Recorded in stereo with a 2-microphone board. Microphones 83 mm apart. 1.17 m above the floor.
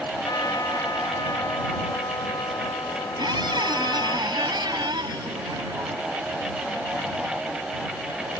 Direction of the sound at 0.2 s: 55° left (ahead or behind).